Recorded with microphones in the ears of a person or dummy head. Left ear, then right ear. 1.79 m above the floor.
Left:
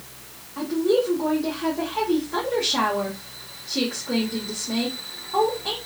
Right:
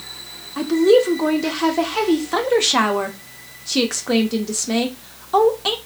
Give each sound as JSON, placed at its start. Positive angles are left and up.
{"t": 0.6, "sound": "a woman speaking", "side_deg": -70, "distance_m": 0.5}